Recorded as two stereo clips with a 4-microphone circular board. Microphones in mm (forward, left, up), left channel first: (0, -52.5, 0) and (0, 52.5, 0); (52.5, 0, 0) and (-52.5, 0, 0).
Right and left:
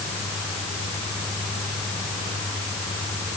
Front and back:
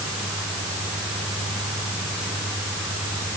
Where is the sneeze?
No sneeze in this recording.